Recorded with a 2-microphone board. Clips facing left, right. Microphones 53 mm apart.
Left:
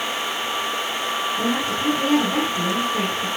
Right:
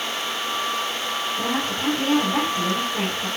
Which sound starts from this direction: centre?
A woman speaking, at 1.4 s.